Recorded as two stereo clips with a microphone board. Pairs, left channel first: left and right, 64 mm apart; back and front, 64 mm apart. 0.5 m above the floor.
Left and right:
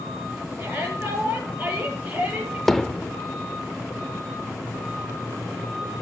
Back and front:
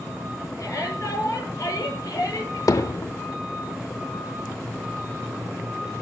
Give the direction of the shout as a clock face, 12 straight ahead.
5 o'clock.